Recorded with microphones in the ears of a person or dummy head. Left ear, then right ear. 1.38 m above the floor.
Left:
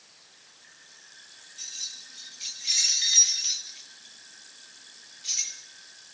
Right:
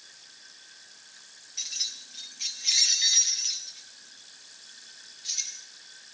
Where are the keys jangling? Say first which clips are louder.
Right 5 dB; 50° right (ahead or behind), 1.3 m; by 5.6 s 35° left (ahead or behind), 2.5 m.